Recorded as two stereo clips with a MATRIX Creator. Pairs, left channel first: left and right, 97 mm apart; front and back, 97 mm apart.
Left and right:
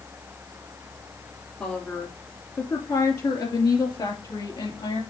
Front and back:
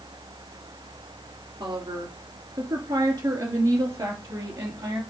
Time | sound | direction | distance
1.6 | a woman speaking | 160° left | 2 m